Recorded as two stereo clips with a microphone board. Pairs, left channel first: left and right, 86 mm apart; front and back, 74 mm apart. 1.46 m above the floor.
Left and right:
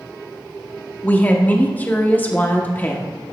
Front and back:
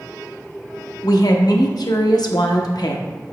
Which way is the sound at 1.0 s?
20° left.